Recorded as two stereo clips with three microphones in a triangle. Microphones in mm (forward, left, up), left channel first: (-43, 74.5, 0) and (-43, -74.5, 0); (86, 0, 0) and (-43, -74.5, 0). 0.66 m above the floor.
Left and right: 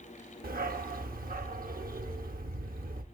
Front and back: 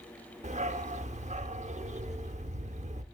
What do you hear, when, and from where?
0.4 s a dog barking: 110° right, 0.6 m